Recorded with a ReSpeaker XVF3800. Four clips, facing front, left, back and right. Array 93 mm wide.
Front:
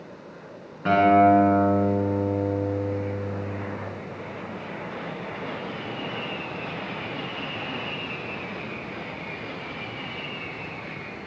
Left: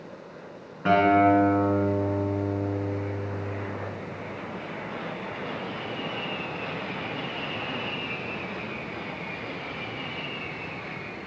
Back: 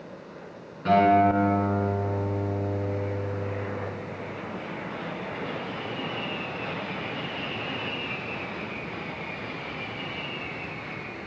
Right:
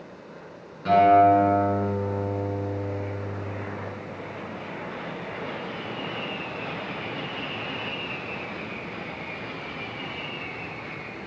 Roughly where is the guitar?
Ahead left.